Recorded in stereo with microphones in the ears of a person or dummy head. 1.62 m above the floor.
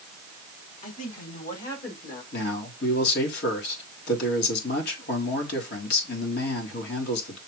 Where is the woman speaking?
50° left (ahead or behind), 4.5 m; by 2.2 s 65° left (ahead or behind), 3.5 m.